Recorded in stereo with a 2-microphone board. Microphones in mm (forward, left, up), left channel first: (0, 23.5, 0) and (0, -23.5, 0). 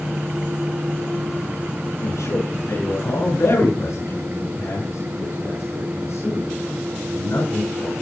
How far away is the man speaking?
About 9.5 m.